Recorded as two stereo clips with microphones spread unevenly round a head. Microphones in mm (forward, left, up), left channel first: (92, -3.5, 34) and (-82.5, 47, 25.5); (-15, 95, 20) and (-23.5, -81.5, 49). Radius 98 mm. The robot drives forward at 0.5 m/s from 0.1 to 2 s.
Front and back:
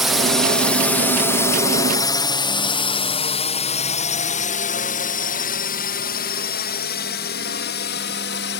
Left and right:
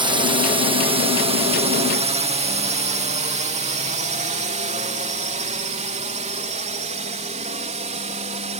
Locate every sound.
0.0 s a drone: 115° right; by 8.6 s 40° right